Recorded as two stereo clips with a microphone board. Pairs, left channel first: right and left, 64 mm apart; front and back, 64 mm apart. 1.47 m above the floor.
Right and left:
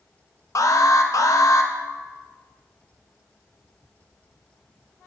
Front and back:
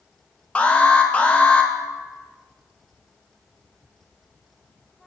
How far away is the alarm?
About 0.6 m.